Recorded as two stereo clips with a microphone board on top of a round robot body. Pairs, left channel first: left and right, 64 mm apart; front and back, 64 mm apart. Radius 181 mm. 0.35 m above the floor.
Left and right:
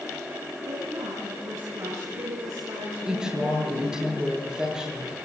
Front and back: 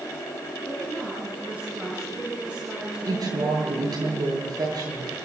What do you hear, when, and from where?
0.6 s a woman speaking: 105° right, 7 m
3.1 s a woman speaking: 170° right, 9.5 m